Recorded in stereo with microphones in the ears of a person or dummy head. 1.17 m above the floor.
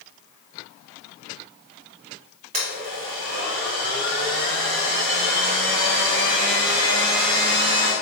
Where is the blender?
40° right (ahead or behind), 1.1 m.